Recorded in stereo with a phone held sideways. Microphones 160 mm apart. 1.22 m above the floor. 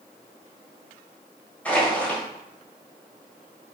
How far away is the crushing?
About 3.5 m.